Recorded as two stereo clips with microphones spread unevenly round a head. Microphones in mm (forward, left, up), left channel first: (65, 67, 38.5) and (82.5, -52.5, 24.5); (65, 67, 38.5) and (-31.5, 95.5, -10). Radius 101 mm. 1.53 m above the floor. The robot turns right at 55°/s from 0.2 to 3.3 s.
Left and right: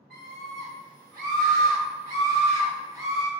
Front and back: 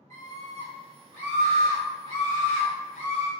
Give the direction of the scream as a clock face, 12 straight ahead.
6 o'clock.